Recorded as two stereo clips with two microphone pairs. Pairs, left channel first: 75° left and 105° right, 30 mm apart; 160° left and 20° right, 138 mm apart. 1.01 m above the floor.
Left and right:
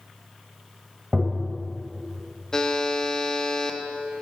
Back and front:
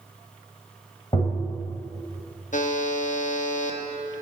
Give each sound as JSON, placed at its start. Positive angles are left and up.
{"t": 1.1, "sound": "tapping", "azimuth_deg": -160, "distance_m": 1.1}
{"t": 2.5, "sound": "a buzzer", "azimuth_deg": 140, "distance_m": 0.7}